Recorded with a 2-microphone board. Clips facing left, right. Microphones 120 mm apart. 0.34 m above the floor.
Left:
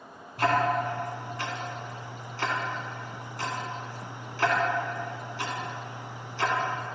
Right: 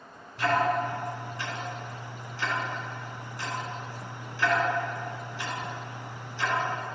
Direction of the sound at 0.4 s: 60° left (ahead or behind).